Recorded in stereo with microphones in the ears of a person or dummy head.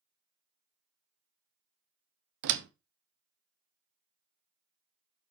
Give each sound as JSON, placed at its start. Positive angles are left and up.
{"t": 2.4, "sound": "a door slam", "side_deg": -65, "distance_m": 1.0}